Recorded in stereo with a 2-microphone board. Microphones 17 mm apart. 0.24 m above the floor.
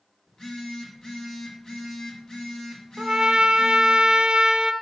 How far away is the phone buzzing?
About 1.4 m.